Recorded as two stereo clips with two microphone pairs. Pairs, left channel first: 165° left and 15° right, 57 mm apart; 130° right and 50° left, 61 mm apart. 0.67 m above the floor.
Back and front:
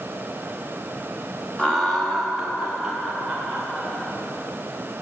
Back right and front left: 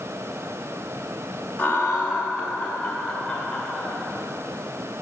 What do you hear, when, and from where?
1.6 s laughter: 135° right, 0.9 m; by 3.9 s 95° right, 2 m